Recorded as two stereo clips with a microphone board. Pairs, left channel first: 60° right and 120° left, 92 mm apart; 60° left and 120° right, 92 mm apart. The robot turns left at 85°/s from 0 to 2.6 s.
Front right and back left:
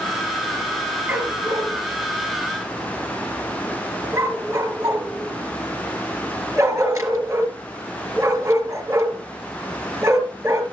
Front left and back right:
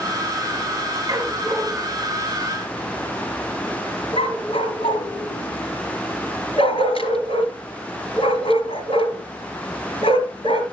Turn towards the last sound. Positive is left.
turn(degrees=60)